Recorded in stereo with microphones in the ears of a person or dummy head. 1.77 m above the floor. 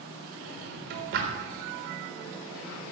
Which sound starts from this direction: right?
A drawer, at 0.4 s.